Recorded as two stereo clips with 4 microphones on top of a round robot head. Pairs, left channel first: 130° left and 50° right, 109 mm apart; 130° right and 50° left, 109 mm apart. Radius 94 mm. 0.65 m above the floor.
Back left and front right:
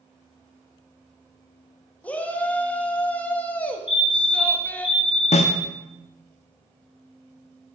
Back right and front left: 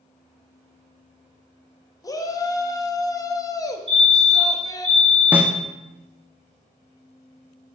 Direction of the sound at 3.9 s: 25° left.